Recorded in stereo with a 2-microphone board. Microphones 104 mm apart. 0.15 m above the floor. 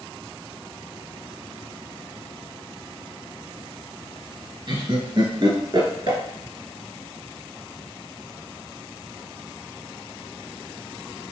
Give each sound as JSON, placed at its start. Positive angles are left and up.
{"t": 4.7, "sound": "laughter", "side_deg": -45, "distance_m": 1.6}